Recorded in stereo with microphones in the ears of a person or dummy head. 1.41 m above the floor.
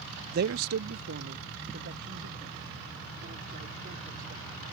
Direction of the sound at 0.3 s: 40° right (ahead or behind).